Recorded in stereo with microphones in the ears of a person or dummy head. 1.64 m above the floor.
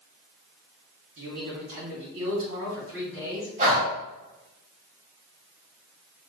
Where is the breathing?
45° right (ahead or behind), 1.6 m.